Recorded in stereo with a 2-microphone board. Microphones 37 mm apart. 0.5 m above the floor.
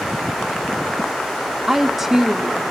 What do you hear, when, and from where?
1.7 s a woman speaking: 10° right (ahead or behind), 0.8 m